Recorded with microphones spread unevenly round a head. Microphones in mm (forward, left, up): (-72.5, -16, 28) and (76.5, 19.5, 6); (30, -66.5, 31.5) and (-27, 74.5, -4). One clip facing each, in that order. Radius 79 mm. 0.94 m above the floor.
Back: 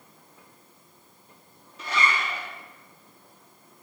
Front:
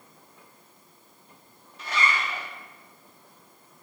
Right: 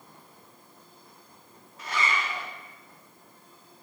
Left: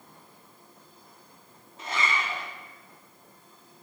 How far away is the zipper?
About 1.2 m.